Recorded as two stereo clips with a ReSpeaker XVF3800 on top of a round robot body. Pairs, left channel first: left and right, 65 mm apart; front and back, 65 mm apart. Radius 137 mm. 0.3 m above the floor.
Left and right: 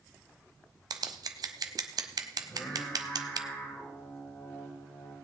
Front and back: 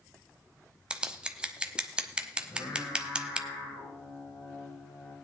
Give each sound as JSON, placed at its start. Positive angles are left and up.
{"t": 0.9, "sound": "scissors", "azimuth_deg": -105, "distance_m": 1.1}
{"t": 2.4, "sound": "singing", "azimuth_deg": 30, "distance_m": 8.0}